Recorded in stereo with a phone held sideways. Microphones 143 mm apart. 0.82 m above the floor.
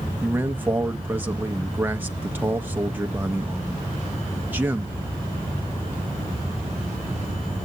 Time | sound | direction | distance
0.2 | a man speaking | 15° right (ahead or behind) | 0.5 m